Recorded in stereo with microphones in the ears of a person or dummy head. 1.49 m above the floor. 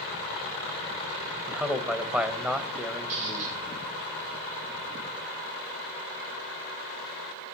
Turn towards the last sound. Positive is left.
turn(degrees=-45)  # may be behind; listen again after turning